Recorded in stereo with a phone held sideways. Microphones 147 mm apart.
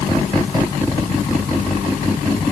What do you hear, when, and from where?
Only background noise.